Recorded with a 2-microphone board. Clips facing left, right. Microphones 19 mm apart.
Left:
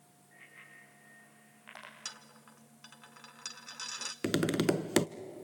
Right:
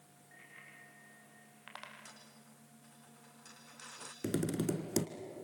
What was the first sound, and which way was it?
A bicycle bell, 15° right (ahead or behind).